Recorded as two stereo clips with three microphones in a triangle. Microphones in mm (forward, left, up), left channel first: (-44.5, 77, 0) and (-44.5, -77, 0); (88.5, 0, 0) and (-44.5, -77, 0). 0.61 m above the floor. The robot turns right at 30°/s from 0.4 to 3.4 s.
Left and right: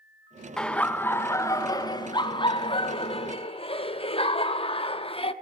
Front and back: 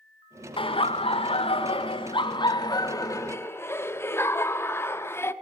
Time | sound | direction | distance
0.6 | laughter | 10° left | 0.8 m